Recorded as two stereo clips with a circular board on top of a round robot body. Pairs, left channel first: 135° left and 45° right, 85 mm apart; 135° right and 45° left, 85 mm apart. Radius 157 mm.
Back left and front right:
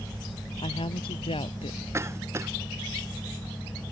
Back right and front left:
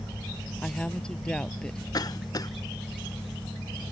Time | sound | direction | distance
0.6 | a woman speaking | 145° left | ?
1.9 | a cough | 100° right | ?